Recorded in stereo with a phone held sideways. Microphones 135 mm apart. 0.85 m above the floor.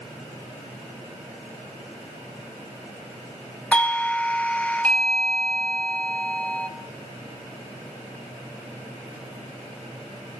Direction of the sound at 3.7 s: 10° left (ahead or behind).